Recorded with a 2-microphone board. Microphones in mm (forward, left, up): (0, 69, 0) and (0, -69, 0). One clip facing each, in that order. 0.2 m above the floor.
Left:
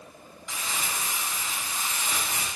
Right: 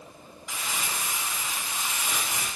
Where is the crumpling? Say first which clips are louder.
Even; 5° right (ahead or behind), 1.9 m.